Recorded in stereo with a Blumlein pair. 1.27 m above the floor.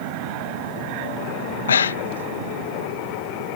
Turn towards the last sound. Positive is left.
turn(degrees=65)